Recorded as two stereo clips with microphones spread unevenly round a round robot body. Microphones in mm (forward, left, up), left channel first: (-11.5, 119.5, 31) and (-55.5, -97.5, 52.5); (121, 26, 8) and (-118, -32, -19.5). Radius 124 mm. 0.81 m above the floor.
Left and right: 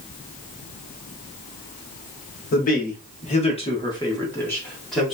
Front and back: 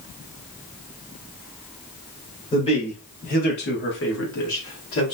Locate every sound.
2.5 s a man speaking: 85° left, 1.2 m; by 5.2 s 10° right, 1.3 m